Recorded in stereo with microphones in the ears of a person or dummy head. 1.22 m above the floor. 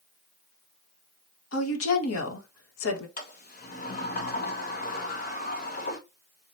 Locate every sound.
1.5 s a woman speaking: 75° left (ahead or behind), 1.5 m
3.2 s a sliding door: 40° left (ahead or behind), 1.1 m